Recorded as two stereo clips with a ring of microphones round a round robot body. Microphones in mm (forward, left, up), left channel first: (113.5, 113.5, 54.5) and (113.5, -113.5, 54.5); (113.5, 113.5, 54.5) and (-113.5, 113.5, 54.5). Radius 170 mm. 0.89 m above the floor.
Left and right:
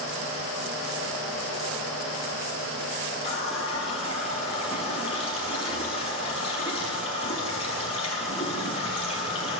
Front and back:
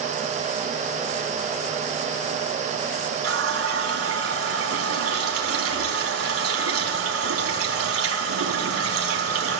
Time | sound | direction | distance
3.2 | a running tap | 165° left | 5 m